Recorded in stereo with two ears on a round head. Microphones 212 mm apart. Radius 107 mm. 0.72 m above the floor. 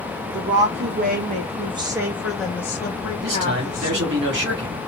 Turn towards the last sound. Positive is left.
turn(degrees=-50)  # may be behind; listen again after turning